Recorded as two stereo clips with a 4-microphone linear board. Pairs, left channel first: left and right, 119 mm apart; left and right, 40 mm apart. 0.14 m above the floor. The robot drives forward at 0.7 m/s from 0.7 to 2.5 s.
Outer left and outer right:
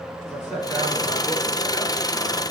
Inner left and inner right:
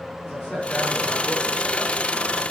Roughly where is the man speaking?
Centre.